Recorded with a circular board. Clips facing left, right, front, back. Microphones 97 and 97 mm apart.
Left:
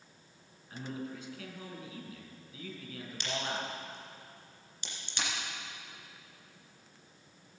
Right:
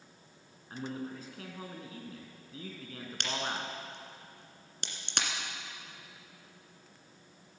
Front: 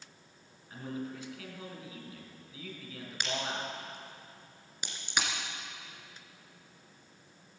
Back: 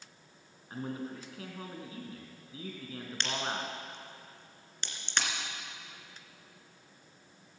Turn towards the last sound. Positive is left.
turn(degrees=-80)